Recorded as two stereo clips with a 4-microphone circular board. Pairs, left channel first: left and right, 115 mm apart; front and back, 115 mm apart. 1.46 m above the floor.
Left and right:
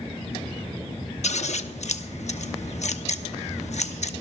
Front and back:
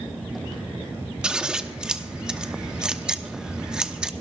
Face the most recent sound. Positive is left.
turn(degrees=100)